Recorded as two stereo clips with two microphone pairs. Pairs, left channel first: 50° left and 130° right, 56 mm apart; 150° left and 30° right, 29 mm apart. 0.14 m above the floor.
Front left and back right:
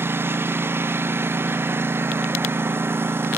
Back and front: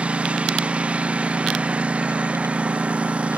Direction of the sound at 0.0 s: 80° right.